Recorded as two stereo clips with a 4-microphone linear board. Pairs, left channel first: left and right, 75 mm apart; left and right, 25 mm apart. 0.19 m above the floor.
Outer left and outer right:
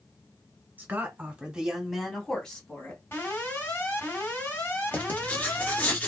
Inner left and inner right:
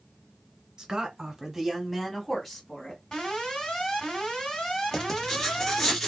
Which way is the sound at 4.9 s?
20° left (ahead or behind).